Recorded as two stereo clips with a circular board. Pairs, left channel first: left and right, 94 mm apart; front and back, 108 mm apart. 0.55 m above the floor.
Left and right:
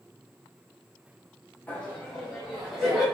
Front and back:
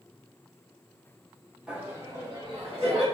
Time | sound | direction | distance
1.7 | laughter | 115° left | 1.0 m